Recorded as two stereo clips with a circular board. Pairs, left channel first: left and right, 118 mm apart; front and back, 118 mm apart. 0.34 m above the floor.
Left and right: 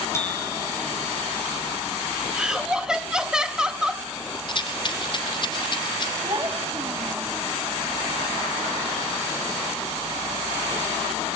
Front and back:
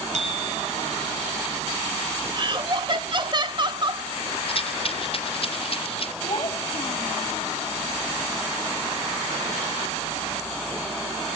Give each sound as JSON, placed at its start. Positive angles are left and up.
{"t": 0.1, "sound": "a bicycle bell", "azimuth_deg": 160, "distance_m": 5.5}
{"t": 2.3, "sound": "laughter", "azimuth_deg": -170, "distance_m": 1.3}
{"t": 4.5, "sound": "a rattle", "azimuth_deg": 40, "distance_m": 2.5}
{"t": 6.2, "sound": "a child speaking", "azimuth_deg": -40, "distance_m": 1.9}